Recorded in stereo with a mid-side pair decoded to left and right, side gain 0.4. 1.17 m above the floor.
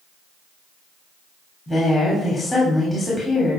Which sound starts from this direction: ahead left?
A woman speaking, at 1.7 s.